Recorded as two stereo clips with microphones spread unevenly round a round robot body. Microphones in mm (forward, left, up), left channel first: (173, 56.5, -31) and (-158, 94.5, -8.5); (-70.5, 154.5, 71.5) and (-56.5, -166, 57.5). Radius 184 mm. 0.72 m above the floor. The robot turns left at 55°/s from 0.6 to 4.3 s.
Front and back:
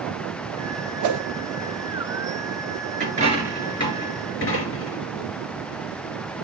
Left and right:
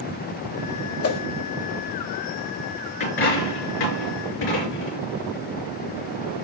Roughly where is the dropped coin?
Behind left.